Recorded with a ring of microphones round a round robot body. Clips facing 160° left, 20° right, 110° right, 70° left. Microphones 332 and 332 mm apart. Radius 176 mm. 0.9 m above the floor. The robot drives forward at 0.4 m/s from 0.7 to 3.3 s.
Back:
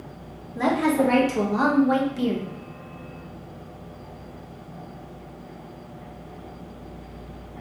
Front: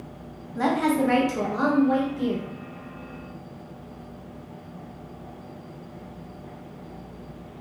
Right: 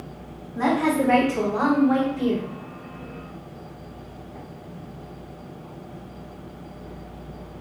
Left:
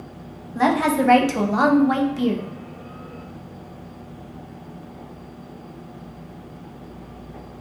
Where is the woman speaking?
45° left, 0.7 m; by 2.5 s 120° left, 0.6 m.